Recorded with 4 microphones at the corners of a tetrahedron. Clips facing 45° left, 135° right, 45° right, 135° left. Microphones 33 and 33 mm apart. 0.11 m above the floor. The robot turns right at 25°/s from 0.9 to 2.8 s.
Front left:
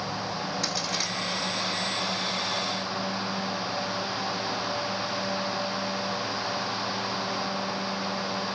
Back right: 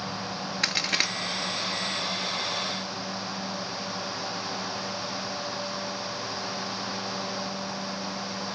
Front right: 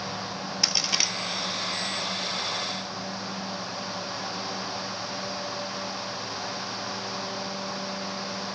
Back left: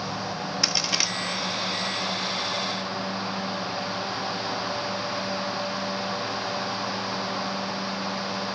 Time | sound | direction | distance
0.6 | a crack | 140° right | 0.7 m